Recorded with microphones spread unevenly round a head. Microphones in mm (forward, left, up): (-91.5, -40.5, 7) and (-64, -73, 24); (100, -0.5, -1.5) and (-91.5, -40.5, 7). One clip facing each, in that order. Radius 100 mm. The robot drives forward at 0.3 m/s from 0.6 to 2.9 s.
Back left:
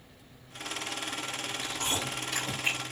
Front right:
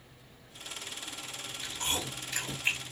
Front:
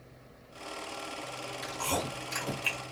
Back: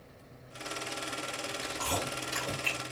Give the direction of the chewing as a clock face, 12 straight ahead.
10 o'clock.